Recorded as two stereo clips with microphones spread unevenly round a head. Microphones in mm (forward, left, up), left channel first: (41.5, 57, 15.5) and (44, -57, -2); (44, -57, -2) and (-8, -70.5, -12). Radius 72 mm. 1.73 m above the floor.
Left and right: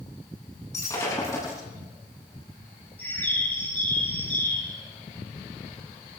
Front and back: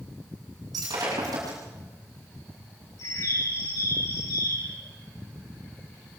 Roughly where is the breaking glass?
Behind.